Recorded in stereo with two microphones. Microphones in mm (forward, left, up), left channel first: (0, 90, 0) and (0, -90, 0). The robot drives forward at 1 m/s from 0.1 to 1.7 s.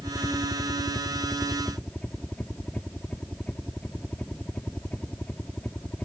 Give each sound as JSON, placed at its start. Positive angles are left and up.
{"t": 0.0, "sound": "a helicopter", "side_deg": 5}